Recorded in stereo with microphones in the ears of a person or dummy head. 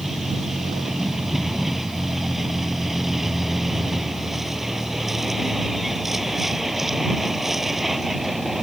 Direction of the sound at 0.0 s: Centre (ahead or behind).